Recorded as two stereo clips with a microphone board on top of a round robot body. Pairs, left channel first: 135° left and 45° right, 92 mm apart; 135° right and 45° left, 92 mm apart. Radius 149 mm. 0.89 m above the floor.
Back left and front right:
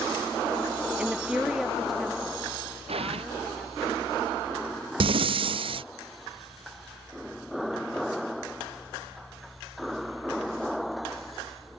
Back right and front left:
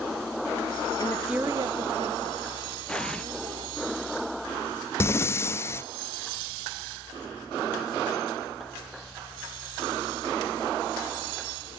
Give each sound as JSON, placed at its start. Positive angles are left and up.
{"t": 1.0, "sound": "a woman speaking", "azimuth_deg": -120}
{"t": 2.9, "sound": "an explosion", "azimuth_deg": -55}
{"t": 5.0, "sound": "breathing", "azimuth_deg": -70}